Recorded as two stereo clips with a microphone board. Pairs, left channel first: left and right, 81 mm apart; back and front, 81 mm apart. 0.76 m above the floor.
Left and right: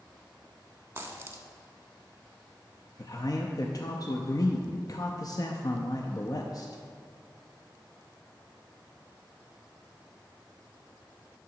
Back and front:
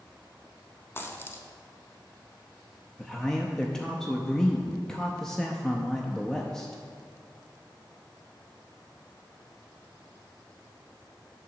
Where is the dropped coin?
135° right, 0.8 m.